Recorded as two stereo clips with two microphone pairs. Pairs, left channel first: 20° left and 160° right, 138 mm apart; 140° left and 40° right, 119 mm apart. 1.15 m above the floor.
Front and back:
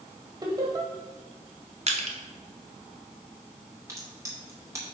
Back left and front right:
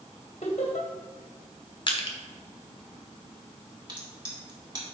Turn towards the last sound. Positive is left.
turn(degrees=-90)